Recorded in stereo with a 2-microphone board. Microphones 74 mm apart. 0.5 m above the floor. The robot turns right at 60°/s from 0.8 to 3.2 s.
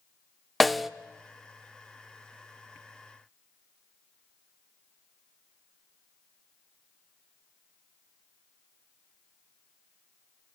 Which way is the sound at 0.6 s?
Centre (ahead or behind).